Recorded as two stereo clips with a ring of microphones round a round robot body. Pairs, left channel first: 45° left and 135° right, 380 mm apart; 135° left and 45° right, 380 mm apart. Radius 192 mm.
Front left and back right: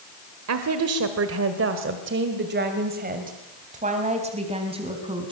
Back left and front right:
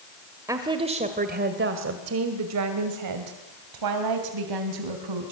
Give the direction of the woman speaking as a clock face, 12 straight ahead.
4 o'clock.